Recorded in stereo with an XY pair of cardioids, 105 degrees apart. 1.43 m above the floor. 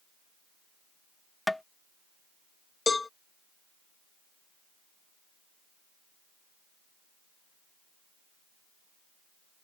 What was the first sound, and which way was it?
Tapping, 10° left.